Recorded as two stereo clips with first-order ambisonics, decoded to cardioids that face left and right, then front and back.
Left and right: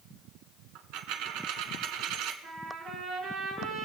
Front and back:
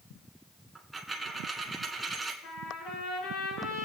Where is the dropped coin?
100° right, 1.0 m.